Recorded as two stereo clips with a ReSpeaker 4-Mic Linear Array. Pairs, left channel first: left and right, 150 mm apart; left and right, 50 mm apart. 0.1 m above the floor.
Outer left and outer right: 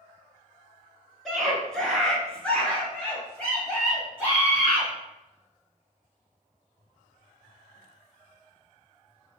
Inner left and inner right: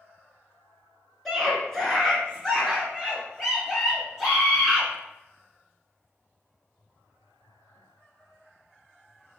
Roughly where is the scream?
Centre.